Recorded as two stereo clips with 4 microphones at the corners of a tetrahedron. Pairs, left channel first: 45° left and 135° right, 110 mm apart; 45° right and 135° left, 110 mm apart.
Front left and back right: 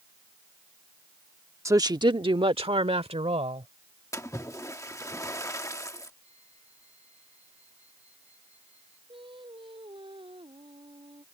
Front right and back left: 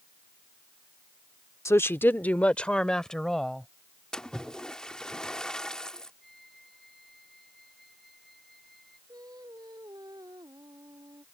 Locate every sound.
1.6 s a woman speaking: 90° right; by 3.7 s 130° right
4.1 s a splash: 30° left
6.2 s a flute: 135° right
9.1 s singing: 170° right